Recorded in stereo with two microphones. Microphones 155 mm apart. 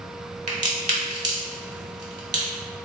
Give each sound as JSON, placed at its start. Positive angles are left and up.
{"t": 0.5, "sound": "a crack", "side_deg": -50, "distance_m": 0.9}